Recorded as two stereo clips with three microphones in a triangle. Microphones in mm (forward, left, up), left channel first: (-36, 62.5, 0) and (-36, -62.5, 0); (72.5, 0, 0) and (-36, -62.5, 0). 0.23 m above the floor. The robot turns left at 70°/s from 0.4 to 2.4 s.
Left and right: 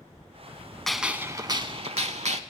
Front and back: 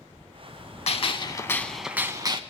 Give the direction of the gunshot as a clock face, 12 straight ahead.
12 o'clock.